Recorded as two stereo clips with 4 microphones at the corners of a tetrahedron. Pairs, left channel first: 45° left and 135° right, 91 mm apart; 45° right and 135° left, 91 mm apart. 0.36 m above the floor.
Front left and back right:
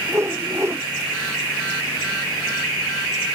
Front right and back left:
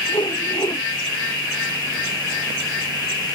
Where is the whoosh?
75° right.